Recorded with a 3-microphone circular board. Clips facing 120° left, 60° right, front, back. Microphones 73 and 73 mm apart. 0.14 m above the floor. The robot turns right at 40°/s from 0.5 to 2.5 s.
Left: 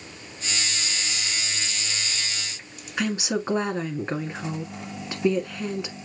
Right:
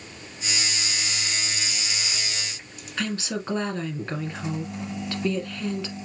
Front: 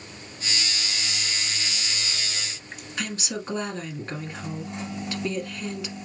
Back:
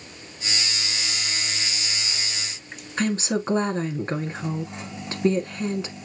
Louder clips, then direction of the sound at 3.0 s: Left 3 dB, back 8 dB; 175° left.